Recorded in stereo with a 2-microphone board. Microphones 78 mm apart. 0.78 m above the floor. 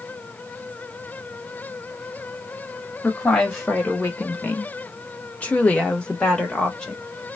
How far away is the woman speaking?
About 1.2 m.